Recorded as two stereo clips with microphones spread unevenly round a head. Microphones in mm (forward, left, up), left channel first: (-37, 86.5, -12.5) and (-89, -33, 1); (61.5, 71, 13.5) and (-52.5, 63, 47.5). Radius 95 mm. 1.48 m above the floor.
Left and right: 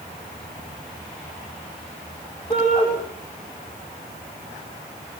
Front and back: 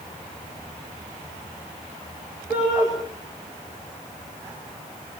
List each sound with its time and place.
2.5 s a shout: 110° left, 8.5 m